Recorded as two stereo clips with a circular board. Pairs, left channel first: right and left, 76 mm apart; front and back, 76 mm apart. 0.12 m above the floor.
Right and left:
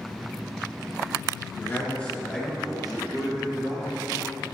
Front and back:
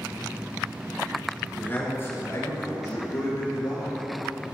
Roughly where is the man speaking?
Ahead right.